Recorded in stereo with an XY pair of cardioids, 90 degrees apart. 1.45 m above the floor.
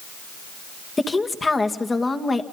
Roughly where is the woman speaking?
Ahead left.